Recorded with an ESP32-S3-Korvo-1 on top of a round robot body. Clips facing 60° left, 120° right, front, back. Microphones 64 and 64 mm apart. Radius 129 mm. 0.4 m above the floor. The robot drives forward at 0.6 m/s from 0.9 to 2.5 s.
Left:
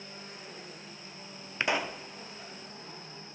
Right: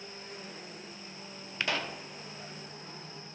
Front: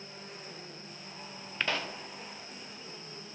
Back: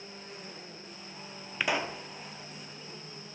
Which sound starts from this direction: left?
A pop, at 1.6 s.